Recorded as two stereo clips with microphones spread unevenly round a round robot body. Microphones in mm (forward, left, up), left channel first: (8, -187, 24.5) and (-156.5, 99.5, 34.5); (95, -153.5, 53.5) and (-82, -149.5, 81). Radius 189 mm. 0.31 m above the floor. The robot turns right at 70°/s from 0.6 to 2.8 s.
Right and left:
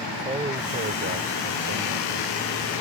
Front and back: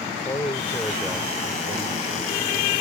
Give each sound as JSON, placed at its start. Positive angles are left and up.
{"t": 0.1, "sound": "a man speaking", "azimuth_deg": 55}